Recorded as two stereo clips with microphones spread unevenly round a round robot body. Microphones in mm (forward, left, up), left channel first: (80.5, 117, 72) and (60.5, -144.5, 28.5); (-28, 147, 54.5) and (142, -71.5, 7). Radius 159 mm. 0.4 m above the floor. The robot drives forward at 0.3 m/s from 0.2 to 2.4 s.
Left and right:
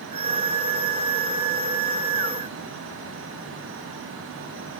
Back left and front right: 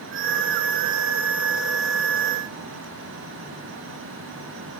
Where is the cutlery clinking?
No cutlery clinking in this recording.